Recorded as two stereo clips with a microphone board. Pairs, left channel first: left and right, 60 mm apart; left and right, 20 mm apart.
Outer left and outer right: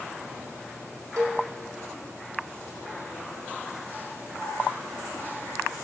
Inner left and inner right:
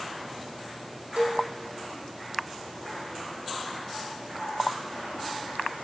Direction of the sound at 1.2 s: 70° right (ahead or behind).